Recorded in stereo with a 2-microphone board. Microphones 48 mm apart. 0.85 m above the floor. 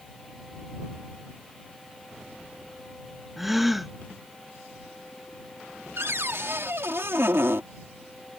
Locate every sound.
3.4 s a gasp: 5° right (ahead or behind)
6.0 s a cupboard door: 60° right (ahead or behind)